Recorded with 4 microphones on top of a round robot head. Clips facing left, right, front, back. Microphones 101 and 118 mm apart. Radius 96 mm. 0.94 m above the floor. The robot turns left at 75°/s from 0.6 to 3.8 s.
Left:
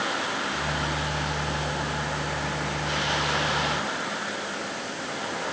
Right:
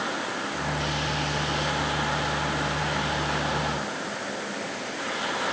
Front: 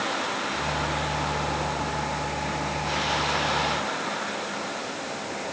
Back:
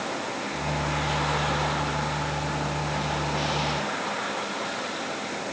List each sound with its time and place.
Only background noise.